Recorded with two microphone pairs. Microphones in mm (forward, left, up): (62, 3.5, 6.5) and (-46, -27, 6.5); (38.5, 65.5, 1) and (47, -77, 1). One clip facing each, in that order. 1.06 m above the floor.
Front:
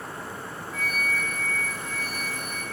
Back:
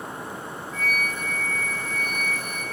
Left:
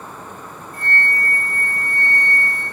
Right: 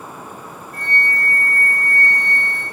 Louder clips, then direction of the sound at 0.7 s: Back 1 dB, left 1 dB; 75° right.